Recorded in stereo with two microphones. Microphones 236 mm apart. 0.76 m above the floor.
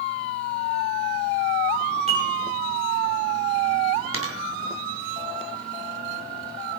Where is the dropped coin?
70° right (ahead or behind), 3 m.